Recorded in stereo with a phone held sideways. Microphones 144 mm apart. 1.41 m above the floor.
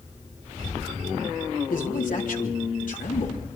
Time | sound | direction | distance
1.7 | a man speaking | 70° left (ahead or behind) | 3.5 m